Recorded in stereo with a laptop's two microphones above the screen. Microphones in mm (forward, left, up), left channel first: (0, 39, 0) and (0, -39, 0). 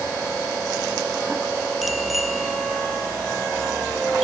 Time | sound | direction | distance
1.8 | a bicycle bell | centre (ahead or behind) | ?